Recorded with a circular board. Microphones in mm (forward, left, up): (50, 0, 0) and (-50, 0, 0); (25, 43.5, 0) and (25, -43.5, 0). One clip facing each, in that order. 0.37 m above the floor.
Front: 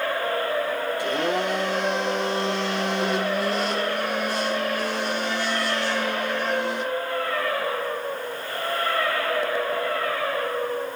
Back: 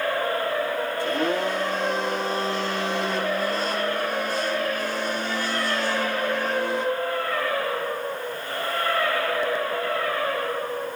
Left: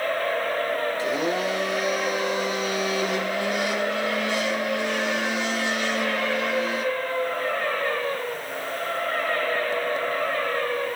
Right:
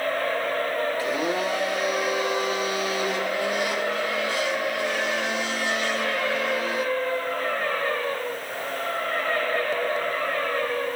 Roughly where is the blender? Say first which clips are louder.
Back 1 dB, left 1 dB; ahead left.